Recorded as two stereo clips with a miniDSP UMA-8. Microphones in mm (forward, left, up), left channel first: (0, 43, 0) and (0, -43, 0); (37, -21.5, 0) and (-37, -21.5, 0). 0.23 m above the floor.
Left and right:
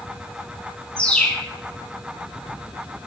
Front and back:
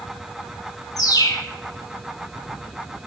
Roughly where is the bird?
Ahead.